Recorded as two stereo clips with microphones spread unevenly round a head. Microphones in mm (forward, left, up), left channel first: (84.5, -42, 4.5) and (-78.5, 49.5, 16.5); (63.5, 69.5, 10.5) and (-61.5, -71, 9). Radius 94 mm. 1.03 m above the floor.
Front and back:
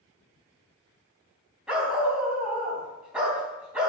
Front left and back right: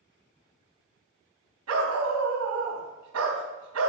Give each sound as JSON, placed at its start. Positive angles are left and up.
{"t": 1.7, "sound": "a dog barking", "azimuth_deg": -125, "distance_m": 3.5}